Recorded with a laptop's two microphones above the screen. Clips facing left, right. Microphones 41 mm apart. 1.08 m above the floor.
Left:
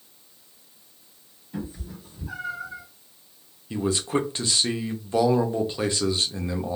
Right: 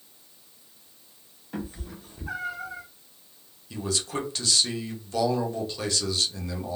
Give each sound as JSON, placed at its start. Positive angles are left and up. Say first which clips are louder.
{"t": 1.5, "sound": "a cat meowing", "louder": "left 1 dB", "side_deg": -70, "distance_m": 1.1}
{"t": 3.7, "sound": "a man speaking", "louder": "left 6 dB", "side_deg": 25, "distance_m": 0.6}